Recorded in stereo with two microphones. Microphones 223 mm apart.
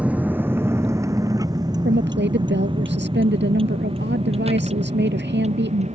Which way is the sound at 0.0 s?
5° right (ahead or behind).